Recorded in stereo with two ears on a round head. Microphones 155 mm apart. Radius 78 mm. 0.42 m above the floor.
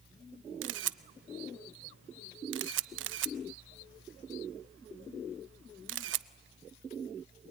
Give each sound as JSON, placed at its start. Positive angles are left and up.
{"t": 0.6, "sound": "a camera shutter", "side_deg": -85, "distance_m": 0.5}